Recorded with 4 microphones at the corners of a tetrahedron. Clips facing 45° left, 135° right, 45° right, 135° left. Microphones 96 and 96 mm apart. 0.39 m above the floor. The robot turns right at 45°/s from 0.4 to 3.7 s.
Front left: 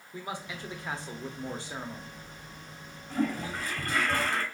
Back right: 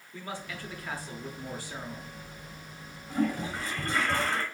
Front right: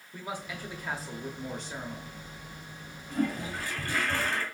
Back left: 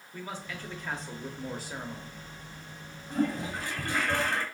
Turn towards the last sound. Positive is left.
turn(degrees=-170)